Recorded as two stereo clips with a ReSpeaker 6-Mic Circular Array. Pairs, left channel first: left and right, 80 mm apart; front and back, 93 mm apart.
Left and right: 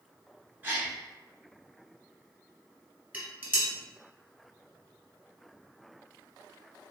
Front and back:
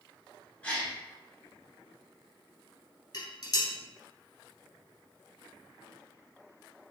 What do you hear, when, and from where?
0.6 s a gasp: 55° right, 1.1 m
3.1 s dishes clattering: 25° right, 1.4 m